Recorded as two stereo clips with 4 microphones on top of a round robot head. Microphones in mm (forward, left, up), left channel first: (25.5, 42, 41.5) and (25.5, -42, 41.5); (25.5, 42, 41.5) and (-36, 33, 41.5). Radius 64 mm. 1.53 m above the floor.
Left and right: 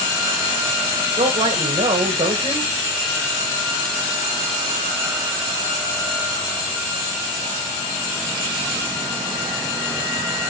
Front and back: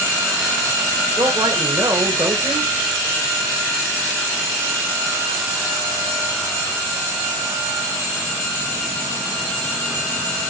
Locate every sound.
1.2 s a man speaking: 130° right, 2 m